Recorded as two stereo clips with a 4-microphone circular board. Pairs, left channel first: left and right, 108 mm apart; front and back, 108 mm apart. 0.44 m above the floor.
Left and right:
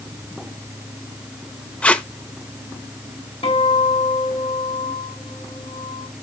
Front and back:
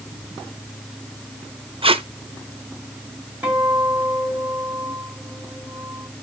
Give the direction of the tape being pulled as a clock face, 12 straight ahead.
6 o'clock.